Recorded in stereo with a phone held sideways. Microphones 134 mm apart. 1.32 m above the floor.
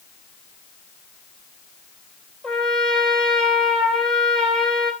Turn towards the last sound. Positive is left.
turn(degrees=5)  # may be behind; listen again after turning